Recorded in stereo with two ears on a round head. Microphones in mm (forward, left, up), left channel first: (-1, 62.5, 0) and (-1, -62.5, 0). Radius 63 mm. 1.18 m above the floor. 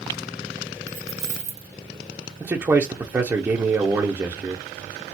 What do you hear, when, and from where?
0.9 s keys jangling: 50° right (ahead or behind), 1.2 m
2.4 s a man speaking: 15° right (ahead or behind), 0.7 m